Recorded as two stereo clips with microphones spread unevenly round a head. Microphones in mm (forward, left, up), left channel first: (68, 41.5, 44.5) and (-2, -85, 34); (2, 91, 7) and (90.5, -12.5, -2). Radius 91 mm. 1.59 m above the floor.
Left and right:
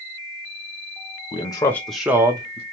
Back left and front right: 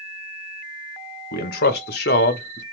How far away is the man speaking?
About 0.8 m.